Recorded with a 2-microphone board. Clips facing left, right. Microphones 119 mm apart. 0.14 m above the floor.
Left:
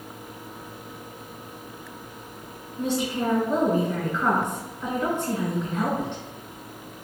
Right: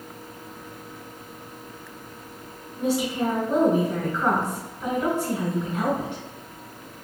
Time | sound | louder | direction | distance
2.8 | a woman speaking | right 2 dB | 10° right (ahead or behind) | 1.5 m